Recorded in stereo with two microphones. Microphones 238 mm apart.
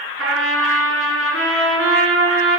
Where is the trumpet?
65° right (ahead or behind), 2 m.